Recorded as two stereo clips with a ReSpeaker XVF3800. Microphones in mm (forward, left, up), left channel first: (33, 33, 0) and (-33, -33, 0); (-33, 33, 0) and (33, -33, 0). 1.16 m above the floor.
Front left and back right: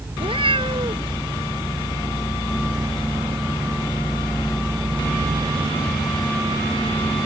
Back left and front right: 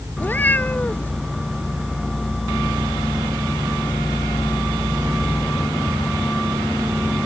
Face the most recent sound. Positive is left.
turn(degrees=-155)